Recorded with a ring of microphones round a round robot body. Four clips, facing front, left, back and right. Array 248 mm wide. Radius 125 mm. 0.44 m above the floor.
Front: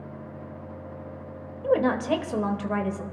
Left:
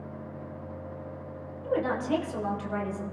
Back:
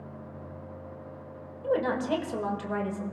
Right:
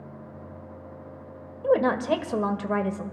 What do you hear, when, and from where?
1.6 s a woman speaking: 70° right, 1.4 m